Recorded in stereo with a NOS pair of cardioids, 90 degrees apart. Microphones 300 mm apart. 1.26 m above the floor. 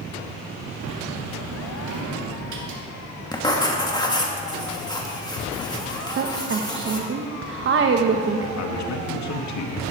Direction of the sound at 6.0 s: 40° right.